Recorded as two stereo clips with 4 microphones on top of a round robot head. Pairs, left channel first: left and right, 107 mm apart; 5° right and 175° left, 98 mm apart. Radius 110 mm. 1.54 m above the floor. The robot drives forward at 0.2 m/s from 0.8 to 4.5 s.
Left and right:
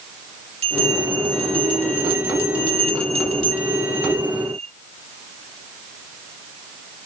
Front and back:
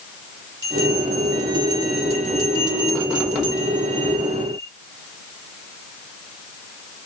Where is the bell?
125° right, 5.5 m; by 4.7 s 130° right, 6 m.